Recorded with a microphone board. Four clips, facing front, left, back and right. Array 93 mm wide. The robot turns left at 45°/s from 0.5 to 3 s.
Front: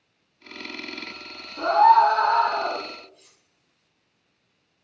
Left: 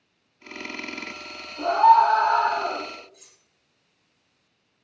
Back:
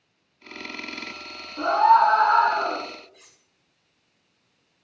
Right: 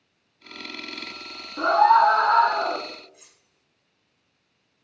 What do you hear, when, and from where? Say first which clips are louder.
1.6 s a scream: left 1 dB, front 1 dB; 100° right, 6.5 m; by 2.8 s 155° right, 6.5 m
3.1 s cutlery clinking: right 1 dB, back 2 dB; 155° right, 2 m